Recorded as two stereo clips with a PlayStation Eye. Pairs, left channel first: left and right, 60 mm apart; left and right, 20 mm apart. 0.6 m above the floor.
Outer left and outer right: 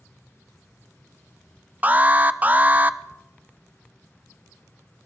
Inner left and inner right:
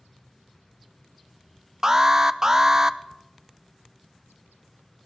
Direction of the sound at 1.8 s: 30° right (ahead or behind).